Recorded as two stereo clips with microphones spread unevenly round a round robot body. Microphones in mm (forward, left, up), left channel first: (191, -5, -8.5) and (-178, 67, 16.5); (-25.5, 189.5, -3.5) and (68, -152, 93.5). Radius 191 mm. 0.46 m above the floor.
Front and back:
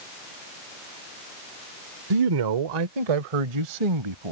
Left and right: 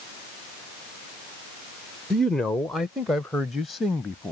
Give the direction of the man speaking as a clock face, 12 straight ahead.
6 o'clock.